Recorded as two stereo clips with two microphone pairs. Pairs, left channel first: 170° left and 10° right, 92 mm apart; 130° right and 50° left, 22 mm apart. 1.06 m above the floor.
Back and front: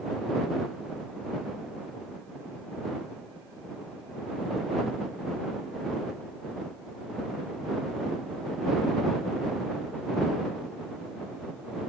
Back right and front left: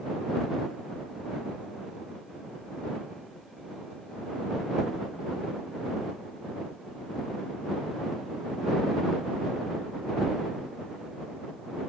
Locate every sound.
Only background noise.